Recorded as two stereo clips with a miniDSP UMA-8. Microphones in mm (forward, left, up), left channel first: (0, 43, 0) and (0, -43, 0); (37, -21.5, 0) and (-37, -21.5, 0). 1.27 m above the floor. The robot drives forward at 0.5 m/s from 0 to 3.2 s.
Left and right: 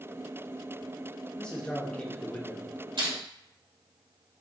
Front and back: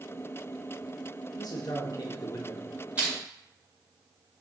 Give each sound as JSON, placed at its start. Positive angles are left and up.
{"t": 1.4, "sound": "a man speaking", "azimuth_deg": 10, "distance_m": 1.1}
{"t": 3.0, "sound": "crushing", "azimuth_deg": -105, "distance_m": 1.9}